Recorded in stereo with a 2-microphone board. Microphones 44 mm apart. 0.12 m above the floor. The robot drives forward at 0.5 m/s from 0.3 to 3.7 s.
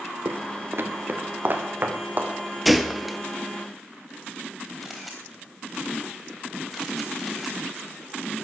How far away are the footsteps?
About 1.1 m.